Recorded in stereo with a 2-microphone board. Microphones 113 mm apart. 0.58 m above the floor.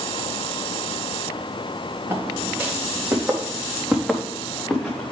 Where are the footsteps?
25° right (ahead or behind), 3.5 m; by 5.1 s 5° left (ahead or behind), 4 m.